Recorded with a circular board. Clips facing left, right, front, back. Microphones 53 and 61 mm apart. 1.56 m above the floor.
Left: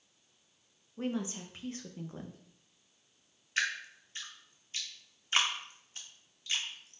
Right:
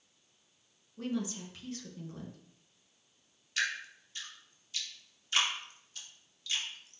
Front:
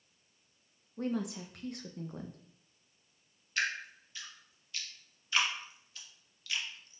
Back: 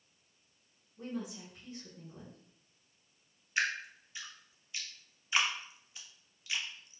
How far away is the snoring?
No snoring in this recording.